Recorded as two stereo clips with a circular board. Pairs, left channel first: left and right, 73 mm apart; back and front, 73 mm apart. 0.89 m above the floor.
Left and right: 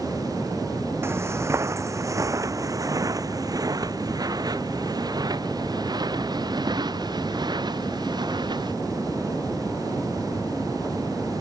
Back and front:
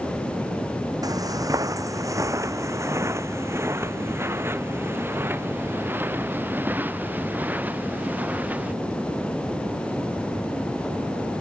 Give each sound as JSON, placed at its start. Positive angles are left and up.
{"t": 1.0, "sound": "footsteps", "azimuth_deg": -35}